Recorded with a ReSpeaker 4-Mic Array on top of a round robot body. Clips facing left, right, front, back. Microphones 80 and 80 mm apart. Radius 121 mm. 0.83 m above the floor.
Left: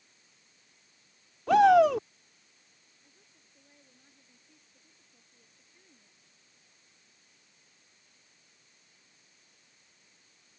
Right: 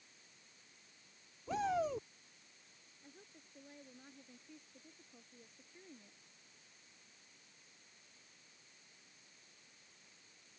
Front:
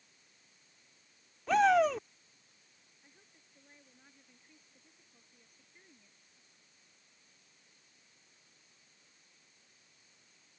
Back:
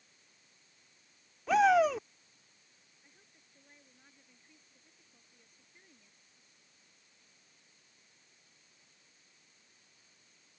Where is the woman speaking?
85° right.